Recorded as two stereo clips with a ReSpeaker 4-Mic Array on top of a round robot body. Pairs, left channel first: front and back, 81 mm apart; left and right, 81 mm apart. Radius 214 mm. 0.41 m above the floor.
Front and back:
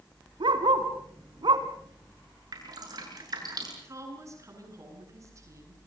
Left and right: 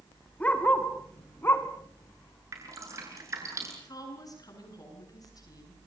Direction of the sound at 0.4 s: 165° left.